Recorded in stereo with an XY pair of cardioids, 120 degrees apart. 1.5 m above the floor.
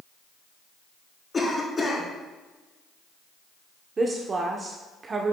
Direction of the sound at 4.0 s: 30° right.